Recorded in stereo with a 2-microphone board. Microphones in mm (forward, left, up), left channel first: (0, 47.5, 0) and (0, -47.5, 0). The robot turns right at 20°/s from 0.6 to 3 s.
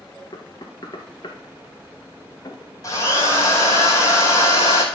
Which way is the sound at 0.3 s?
50° left (ahead or behind).